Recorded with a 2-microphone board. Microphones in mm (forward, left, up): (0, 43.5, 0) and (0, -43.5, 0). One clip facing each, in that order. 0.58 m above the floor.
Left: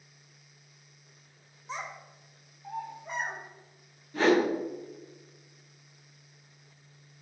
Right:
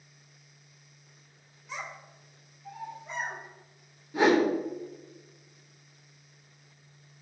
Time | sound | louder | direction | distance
1.7 | a child speaking | left 1 dB | 30° left (ahead or behind) | 0.9 m
4.1 | a whoosh | right 1 dB | 15° right (ahead or behind) | 0.7 m